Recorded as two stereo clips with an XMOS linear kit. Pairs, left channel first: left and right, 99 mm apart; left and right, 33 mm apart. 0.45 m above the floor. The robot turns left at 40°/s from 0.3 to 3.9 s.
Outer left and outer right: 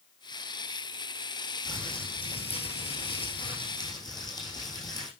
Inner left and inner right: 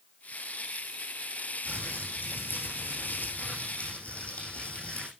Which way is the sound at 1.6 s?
135° left.